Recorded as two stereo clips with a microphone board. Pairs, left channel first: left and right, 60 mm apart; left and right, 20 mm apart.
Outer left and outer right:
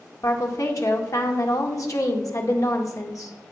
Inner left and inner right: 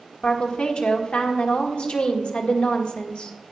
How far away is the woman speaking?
About 1.7 m.